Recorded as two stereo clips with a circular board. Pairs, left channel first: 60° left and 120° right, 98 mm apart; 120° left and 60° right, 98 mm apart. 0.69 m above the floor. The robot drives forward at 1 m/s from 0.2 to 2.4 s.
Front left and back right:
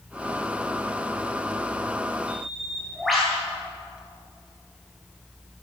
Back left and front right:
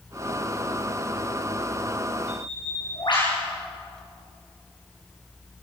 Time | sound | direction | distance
2.3 | a bird | 150° left | 9.5 m